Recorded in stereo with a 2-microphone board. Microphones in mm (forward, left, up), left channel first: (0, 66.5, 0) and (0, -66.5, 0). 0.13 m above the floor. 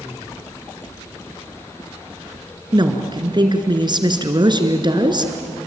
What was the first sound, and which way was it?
A woman speaking, 40° right (ahead or behind).